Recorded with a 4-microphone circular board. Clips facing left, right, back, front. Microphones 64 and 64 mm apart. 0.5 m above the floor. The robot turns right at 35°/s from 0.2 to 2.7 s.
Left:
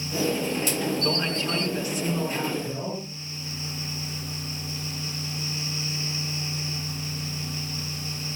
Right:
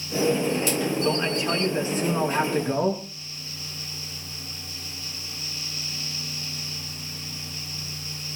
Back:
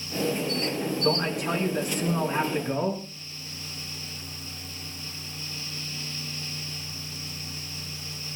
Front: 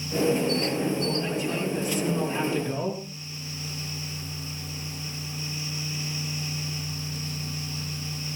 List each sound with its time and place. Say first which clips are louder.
1.0 s a man speaking: right 3 dB, back 2 dB; 175° right, 5.5 m; by 3.0 s 120° right, 5.5 m